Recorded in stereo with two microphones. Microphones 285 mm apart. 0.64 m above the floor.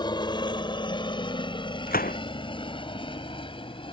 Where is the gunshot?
30° left (ahead or behind).